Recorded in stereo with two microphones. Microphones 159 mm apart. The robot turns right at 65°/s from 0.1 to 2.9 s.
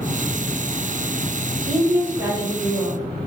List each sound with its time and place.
1.7 s a woman speaking: 170° left, 1.7 m; by 3.3 s 110° right, 1.7 m